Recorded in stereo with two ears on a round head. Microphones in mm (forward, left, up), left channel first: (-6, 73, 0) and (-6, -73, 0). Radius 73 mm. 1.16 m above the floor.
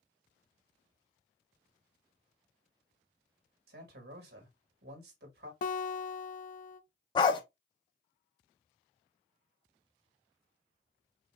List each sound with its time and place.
3.7 s a man speaking: 65° right (ahead or behind), 1.6 m
5.6 s a guitar: 50° left (ahead or behind), 0.6 m
7.2 s a dog barking: 25° left (ahead or behind), 0.7 m